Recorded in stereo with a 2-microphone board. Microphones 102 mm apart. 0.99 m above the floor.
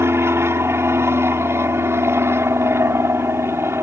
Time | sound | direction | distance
0.0 | an aircraft | 25° right (ahead or behind) | ?